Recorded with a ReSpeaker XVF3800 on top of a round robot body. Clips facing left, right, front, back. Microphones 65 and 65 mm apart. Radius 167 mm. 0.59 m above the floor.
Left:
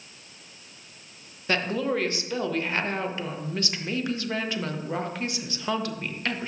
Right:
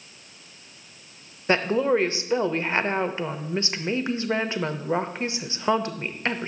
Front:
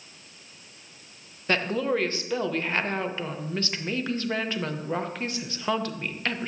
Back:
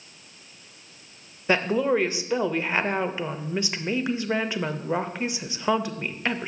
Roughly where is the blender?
No blender in this recording.